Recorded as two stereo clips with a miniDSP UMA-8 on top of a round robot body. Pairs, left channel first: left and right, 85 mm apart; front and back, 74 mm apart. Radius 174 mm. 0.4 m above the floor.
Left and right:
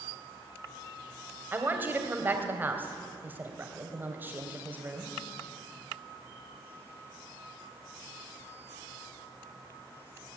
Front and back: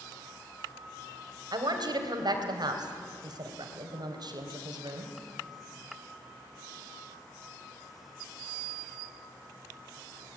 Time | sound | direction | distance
1.5 | a woman speaking | 160° right | 3 m